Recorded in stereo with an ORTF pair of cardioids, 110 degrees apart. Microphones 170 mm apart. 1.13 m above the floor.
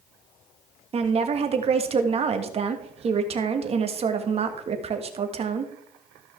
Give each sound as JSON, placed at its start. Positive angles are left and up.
{"t": 0.9, "sound": "a woman speaking", "azimuth_deg": -40, "distance_m": 1.6}